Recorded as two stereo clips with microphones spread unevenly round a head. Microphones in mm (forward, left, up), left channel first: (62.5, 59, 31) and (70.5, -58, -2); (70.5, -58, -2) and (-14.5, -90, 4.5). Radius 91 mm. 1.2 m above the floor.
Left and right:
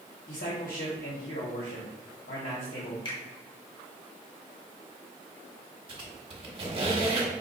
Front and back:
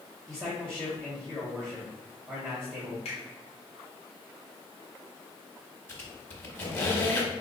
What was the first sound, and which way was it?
A man speaking, 105° left.